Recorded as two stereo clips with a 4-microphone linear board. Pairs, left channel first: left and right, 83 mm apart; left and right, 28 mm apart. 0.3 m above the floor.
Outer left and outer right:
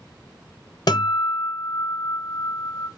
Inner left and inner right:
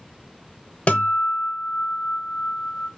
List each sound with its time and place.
0.9 s a guitar: 55° left (ahead or behind), 0.8 m